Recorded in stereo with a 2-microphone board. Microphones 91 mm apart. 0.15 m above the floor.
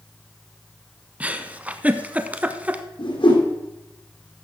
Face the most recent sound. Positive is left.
turn(degrees=75)  # may be behind; listen again after turning